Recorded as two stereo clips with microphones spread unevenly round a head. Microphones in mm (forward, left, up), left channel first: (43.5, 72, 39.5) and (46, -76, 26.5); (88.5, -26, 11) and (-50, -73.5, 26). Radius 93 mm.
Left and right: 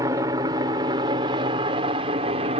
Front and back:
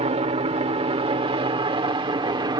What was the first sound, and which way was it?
A helicopter, 145° right.